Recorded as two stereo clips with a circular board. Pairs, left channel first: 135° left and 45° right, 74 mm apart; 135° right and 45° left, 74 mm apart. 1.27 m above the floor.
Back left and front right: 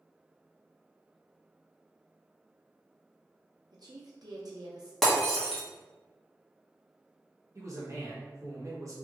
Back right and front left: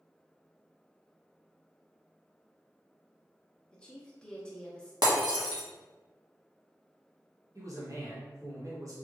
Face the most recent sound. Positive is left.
turn(degrees=0)